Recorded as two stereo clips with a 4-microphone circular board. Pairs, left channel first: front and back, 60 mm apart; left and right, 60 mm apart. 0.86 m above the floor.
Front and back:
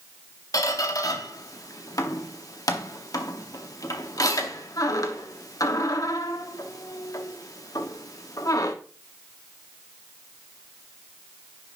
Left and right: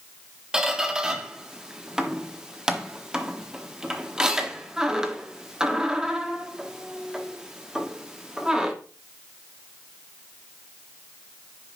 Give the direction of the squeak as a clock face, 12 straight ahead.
12 o'clock.